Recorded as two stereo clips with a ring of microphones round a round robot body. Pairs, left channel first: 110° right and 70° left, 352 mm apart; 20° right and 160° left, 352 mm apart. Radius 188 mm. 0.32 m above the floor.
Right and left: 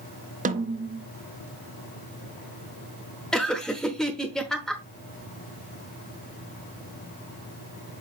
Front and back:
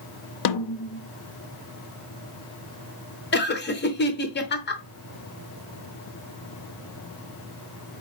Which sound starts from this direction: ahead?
A snare drum, at 0.5 s.